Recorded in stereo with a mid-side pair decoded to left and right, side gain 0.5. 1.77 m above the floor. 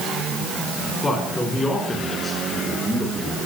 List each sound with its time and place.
1.0 s a man speaking: 30° left, 5.5 m; by 3.4 s 10° left, 7.5 m